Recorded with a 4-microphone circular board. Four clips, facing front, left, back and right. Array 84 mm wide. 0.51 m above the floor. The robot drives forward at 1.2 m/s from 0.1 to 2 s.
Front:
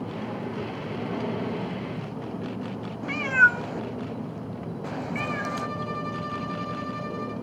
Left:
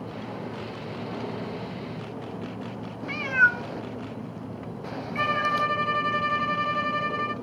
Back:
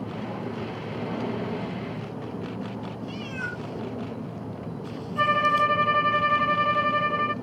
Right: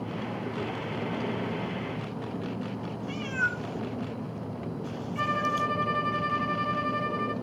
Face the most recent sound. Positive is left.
turn(degrees=165)